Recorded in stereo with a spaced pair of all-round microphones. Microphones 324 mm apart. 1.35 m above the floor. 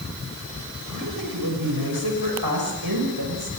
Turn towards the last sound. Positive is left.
turn(degrees=-85)